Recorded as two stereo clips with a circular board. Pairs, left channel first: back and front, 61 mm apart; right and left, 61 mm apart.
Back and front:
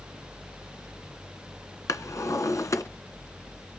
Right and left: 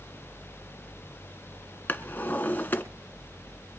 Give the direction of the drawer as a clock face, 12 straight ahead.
5 o'clock.